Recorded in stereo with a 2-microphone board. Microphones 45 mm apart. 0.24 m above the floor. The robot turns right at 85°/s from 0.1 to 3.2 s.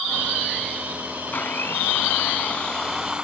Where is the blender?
45° left, 0.9 m; by 3.2 s 155° right, 0.9 m.